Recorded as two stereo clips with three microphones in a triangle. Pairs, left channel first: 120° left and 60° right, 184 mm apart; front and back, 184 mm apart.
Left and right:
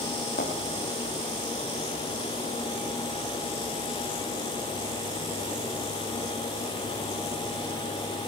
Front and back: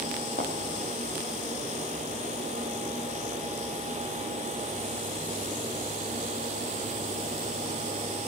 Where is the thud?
145° left, 6 m.